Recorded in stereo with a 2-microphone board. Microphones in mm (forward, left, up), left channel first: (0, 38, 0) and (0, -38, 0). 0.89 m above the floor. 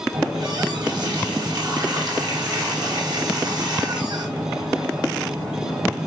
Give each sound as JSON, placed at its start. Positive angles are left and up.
{"t": 0.1, "sound": "a running tap", "side_deg": -60, "distance_m": 3.5}